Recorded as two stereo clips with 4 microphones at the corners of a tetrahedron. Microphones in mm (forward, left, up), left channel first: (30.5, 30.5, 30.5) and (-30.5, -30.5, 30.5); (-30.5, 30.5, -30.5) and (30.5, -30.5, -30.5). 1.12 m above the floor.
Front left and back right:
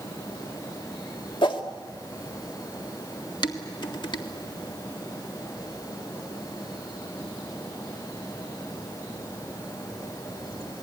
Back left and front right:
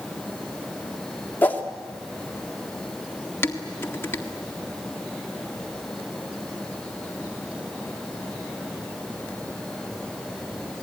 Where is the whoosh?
65° left, 1.8 m.